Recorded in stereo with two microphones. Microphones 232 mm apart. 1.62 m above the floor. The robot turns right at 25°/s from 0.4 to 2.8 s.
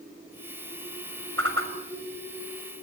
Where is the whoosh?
75° right (ahead or behind), 6.5 m; by 1.7 s 65° right (ahead or behind), 6.5 m.